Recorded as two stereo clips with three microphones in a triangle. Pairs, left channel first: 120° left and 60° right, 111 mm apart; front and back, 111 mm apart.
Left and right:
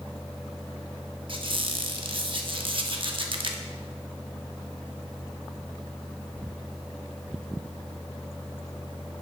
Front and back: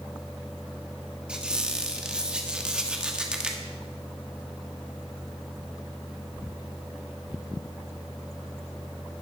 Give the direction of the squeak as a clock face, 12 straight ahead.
3 o'clock.